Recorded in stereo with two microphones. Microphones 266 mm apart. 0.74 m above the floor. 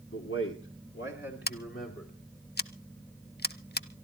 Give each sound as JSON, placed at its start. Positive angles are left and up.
{"t": 0.1, "sound": "a man speaking", "side_deg": 55, "distance_m": 2.0}
{"t": 1.5, "sound": "scissors", "side_deg": 35, "distance_m": 0.6}